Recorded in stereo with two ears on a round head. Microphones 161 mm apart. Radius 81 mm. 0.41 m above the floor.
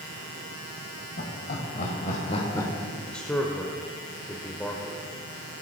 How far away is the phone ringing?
No phone ringing in this recording.